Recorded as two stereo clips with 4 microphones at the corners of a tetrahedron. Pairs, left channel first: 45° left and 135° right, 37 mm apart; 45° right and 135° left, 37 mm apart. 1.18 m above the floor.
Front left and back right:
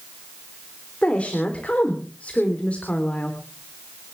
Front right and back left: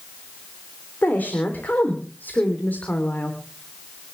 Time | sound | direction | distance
1.0 | a woman speaking | 10° right | 3.5 m